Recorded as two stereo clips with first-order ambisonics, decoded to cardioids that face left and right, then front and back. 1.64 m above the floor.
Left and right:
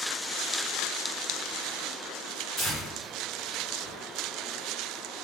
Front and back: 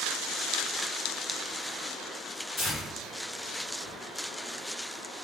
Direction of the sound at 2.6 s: 55° left.